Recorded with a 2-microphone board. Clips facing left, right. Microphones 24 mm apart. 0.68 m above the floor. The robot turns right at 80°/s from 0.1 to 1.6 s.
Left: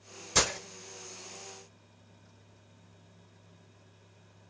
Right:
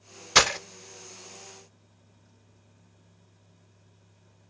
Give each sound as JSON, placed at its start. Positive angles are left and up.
{"t": 0.3, "sound": "breaking glass", "side_deg": -60, "distance_m": 0.6}